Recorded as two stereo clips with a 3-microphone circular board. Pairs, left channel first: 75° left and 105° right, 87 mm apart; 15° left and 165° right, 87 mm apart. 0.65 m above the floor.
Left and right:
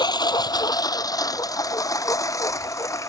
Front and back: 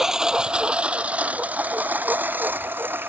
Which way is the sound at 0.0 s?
110° left.